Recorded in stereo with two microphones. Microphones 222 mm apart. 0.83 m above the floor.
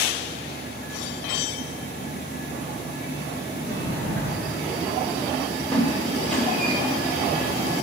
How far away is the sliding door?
About 3.5 m.